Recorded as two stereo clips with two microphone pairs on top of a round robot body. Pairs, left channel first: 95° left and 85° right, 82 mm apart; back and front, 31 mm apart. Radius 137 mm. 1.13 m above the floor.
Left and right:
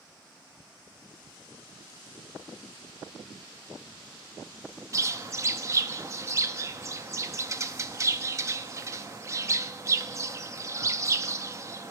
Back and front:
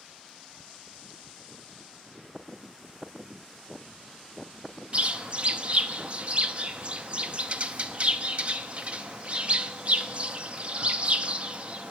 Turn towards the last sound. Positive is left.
turn(degrees=-50)